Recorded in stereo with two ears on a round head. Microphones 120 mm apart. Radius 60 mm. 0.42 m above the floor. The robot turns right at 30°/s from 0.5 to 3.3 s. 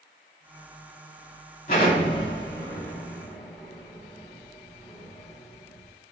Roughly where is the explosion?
Left.